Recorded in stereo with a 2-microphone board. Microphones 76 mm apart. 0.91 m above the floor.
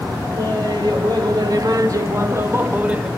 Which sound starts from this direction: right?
Laughter, at 0.3 s.